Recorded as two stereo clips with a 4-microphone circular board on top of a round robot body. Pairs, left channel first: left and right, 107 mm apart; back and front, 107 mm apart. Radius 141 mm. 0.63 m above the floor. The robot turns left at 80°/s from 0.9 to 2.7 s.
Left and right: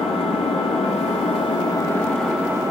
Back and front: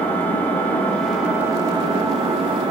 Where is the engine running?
110° left, 1.8 m; by 2.7 s 35° right, 1.8 m.